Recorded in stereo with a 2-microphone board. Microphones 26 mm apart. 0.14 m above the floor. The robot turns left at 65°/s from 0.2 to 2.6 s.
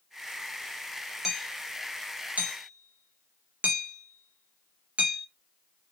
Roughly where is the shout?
No shout in this recording.